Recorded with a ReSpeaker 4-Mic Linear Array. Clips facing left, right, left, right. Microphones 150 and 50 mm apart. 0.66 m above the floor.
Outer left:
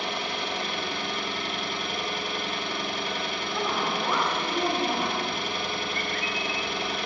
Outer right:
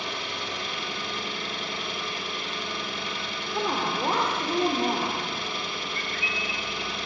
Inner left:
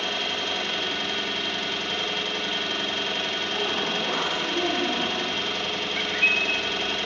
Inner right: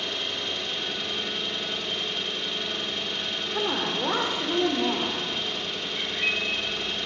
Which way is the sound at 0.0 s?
60° left (ahead or behind).